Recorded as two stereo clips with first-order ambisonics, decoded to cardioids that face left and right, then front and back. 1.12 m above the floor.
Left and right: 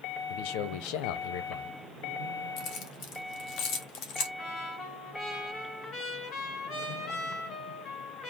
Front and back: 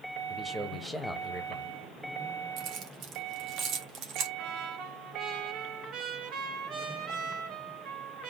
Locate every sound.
0.3 s a man speaking: 90° left, 0.9 m
2.6 s keys jangling: 130° left, 1.4 m
4.4 s a trumpet: 140° left, 2.5 m